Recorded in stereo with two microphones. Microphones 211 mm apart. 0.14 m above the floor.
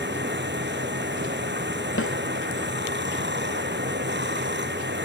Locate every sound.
0.0 s running water: 55° right (ahead or behind)
2.0 s a snare drum: 80° left